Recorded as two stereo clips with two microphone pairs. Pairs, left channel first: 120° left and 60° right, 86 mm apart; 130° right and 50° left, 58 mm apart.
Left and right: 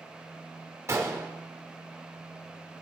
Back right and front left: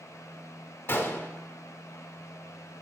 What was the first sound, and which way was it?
A gunshot, 100° right.